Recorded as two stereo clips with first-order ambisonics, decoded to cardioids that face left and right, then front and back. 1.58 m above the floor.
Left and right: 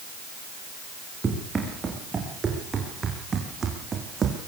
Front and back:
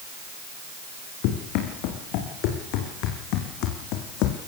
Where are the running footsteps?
15° right, 7 m; by 4.4 s 25° right, 4.5 m.